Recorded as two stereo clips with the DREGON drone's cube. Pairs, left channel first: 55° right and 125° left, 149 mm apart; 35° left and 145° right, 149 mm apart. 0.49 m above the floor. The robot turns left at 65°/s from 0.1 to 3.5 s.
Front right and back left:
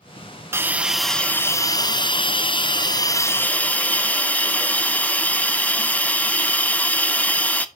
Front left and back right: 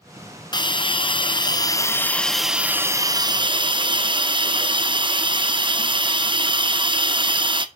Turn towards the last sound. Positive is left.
turn(degrees=-130)